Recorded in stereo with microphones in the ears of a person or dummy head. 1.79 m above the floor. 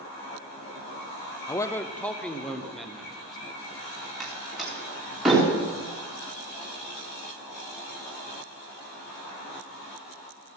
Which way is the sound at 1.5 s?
15° left (ahead or behind).